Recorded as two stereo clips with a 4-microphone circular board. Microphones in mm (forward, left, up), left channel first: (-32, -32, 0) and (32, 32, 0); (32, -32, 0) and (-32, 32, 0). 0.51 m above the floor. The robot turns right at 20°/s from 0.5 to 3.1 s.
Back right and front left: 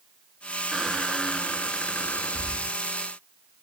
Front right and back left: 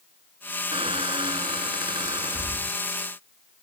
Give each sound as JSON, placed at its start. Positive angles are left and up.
{"t": 0.7, "sound": "a squeak", "azimuth_deg": 135}